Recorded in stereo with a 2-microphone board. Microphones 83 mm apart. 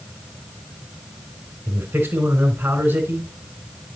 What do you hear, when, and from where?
1.7 s a man speaking: 25° right (ahead or behind), 3 m